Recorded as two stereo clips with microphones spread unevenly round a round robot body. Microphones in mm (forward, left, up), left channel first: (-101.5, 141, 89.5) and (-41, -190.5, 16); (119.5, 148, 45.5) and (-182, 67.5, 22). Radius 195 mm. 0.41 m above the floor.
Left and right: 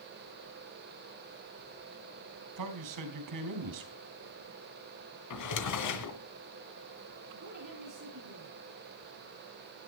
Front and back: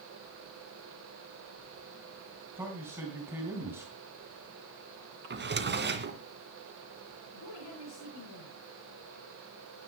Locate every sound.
2.6 s a man speaking: 80° right, 3.5 m
5.3 s a drawer: 140° left, 2 m
7.3 s a woman speaking: 30° right, 9 m